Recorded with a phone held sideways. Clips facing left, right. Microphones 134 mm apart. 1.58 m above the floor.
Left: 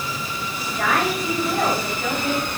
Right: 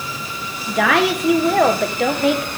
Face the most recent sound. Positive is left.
turn(degrees=-90)